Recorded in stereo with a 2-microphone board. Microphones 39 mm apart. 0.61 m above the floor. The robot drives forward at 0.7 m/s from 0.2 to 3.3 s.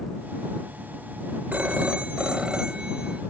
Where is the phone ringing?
50° right (ahead or behind); by 3.2 s 20° right (ahead or behind).